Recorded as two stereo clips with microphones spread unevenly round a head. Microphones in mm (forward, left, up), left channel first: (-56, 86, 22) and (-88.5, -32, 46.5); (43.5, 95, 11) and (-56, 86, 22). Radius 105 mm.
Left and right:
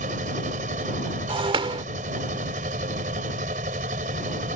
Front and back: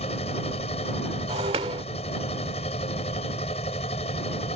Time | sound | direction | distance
0.0 | a machine running | 55° right | ?
1.3 | breaking glass | 140° right | ?